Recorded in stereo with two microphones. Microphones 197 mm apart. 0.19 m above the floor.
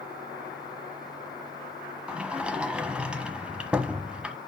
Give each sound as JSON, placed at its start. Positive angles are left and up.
{"t": 2.1, "sound": "a sliding door", "side_deg": -5, "distance_m": 1.2}